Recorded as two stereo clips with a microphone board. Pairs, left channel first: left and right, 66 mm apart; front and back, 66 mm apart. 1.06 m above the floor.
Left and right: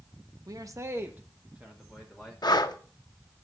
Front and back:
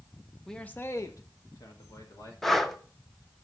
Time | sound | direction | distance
0.5 | a man speaking | 85° right | 0.9 m
2.4 | breathing | 85° left | 0.7 m